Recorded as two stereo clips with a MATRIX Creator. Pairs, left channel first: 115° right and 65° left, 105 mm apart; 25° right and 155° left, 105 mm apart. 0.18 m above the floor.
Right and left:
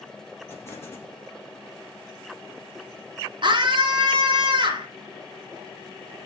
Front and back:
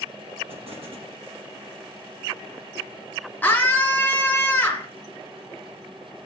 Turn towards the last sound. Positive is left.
turn(degrees=45)